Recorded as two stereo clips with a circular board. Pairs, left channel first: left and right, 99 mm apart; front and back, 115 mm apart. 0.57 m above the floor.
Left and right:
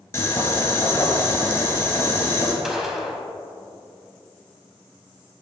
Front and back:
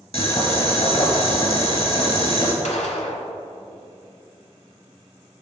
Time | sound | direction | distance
0.1 | boiling | 30° left | 1.7 m
2.6 | a gunshot | 5° right | 1.1 m